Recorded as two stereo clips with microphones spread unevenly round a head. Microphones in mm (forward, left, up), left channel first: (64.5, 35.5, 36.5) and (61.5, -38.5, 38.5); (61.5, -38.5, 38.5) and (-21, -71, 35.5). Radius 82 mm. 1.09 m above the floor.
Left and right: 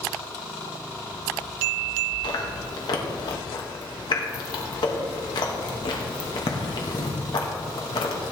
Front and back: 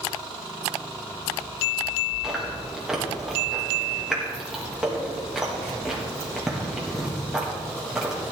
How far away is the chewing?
About 1.4 m.